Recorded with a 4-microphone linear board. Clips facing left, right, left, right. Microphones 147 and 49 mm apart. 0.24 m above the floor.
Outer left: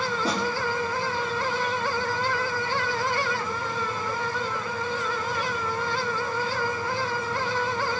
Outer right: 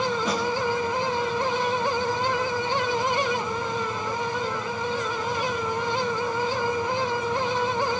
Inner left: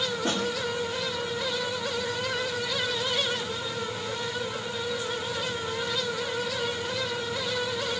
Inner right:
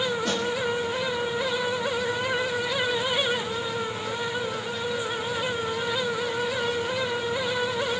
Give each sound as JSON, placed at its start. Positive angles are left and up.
{"t": 0.2, "sound": "a snare drum", "side_deg": 35, "distance_m": 9.5}